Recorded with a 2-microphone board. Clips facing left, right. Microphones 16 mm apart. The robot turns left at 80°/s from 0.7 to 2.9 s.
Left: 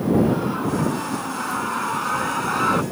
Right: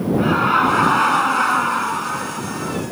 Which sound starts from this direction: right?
Laughter, at 0.2 s.